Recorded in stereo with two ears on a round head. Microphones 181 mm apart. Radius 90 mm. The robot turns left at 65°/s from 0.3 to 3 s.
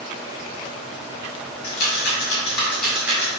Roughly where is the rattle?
Left.